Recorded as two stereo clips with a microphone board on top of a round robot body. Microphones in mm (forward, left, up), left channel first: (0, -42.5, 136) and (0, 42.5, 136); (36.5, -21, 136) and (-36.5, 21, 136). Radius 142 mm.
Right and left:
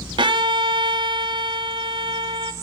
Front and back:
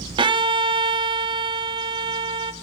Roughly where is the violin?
Behind left.